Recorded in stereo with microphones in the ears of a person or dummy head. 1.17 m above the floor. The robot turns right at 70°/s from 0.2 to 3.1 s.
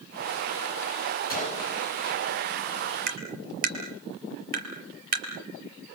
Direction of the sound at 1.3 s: 50° left (ahead or behind).